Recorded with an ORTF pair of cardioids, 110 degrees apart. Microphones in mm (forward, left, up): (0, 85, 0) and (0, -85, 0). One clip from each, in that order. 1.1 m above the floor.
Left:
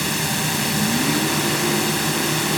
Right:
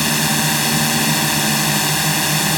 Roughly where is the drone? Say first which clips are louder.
Right 5 dB; ahead right.